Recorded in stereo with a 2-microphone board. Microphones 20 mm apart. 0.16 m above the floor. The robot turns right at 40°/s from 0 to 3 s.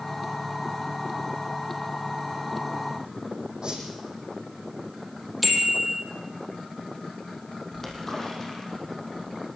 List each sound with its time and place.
3.6 s a whoosh: 35° right (ahead or behind), 8.5 m
5.4 s a bicycle bell: 5° right (ahead or behind), 3.5 m
7.7 s a splash: 20° left (ahead or behind), 4.5 m